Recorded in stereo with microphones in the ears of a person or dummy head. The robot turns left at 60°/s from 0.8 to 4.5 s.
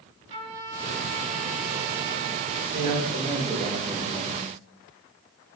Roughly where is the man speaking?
Right.